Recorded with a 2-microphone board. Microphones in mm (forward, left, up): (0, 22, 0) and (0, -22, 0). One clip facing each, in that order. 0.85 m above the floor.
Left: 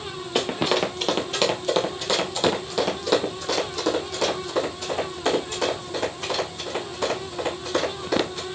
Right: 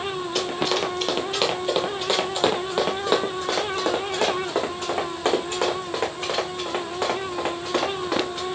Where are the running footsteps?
25° left (ahead or behind), 1.1 m; by 8.4 s 45° right (ahead or behind), 4.5 m.